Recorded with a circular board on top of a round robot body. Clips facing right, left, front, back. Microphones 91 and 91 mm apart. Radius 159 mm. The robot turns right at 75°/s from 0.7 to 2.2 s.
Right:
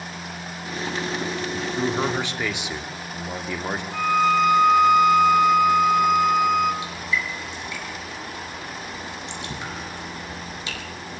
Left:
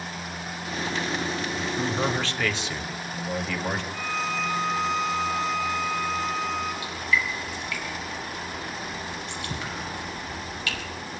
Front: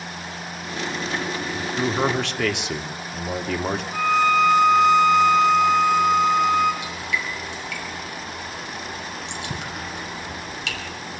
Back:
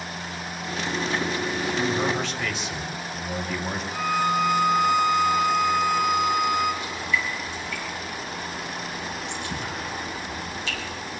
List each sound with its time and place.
1.5 s a man speaking: 65° right, 2.5 m; by 3.8 s 15° right, 2.5 m
3.9 s a violin: 60° right, 4.5 m
6.8 s dripping: 20° right, 5.5 m